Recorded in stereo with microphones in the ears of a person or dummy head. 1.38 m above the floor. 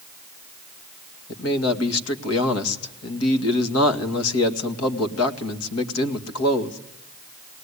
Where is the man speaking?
85° left, 2.5 m.